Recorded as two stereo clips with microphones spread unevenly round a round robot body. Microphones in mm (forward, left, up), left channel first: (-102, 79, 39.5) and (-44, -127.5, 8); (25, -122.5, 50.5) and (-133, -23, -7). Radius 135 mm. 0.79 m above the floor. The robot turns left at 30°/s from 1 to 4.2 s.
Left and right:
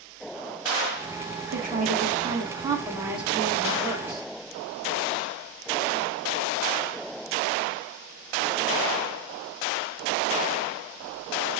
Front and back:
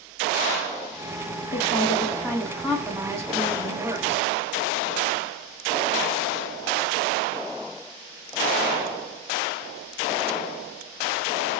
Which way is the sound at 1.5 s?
100° right.